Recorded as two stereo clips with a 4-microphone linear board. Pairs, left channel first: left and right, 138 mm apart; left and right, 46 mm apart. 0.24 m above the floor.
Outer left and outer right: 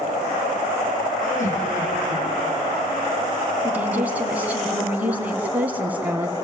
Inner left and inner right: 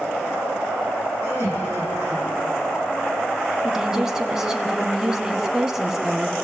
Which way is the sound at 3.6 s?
10° right (ahead or behind).